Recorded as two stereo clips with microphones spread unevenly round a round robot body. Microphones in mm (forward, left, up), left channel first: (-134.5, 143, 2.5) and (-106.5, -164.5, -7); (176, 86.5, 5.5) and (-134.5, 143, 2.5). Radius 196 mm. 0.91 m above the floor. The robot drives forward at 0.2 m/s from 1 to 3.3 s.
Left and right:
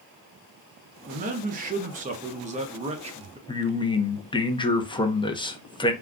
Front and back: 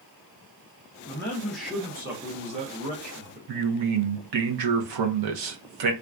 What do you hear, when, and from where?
1.1 s a man speaking: 80° right, 0.7 m; by 3.4 s 145° right, 0.8 m
3.5 s a man speaking: 170° left, 0.8 m